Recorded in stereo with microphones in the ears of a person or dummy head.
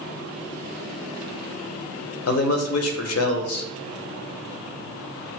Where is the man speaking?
80° left, 0.7 m.